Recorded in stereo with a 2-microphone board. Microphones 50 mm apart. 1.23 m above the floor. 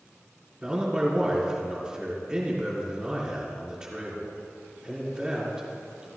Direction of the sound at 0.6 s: 15° right (ahead or behind).